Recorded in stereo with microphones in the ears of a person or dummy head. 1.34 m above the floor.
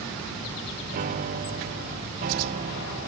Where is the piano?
50° right (ahead or behind).